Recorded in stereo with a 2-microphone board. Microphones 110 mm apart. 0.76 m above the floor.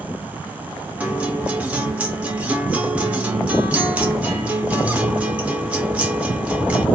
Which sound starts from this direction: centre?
A guitar, at 1.0 s.